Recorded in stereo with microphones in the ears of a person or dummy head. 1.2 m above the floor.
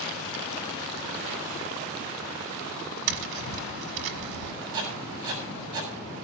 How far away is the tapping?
About 1.2 m.